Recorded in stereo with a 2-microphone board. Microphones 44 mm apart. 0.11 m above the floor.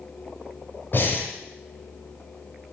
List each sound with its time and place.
0.9 s breathing: 50° left (ahead or behind), 2.5 m